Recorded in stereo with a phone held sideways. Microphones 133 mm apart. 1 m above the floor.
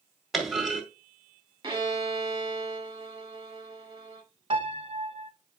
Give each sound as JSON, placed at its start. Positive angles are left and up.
{"t": 0.3, "sound": "a clunk", "side_deg": 0, "distance_m": 1.9}
{"t": 1.6, "sound": "a violin", "side_deg": -30, "distance_m": 1.6}
{"t": 4.5, "sound": "a piano", "side_deg": -45, "distance_m": 1.0}